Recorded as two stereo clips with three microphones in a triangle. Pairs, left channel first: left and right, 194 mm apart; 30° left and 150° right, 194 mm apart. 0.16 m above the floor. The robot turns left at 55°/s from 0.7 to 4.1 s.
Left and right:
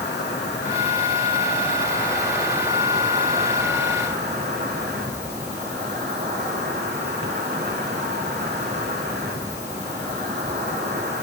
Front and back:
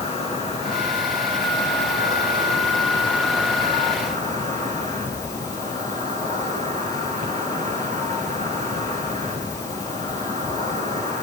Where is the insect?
85° left, 4 m; by 11.2 s 105° right, 4 m.